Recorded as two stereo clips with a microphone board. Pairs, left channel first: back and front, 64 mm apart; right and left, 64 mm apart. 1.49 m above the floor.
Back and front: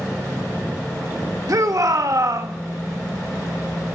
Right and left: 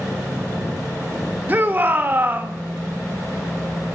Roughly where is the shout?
Ahead left.